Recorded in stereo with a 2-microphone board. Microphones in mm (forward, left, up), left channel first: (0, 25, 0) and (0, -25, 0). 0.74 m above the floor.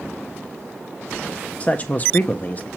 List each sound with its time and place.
1.6 s a man speaking: 25° left (ahead or behind), 0.5 m; by 2.7 s 30° left (ahead or behind), 0.7 m